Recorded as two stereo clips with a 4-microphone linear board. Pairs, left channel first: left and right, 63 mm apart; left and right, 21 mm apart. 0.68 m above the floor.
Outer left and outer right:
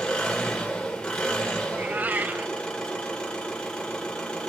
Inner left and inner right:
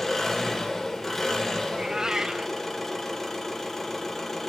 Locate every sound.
0.0 s an engine running: 15° left (ahead or behind), 2.5 m
1.7 s a cat meowing: 25° right (ahead or behind), 0.6 m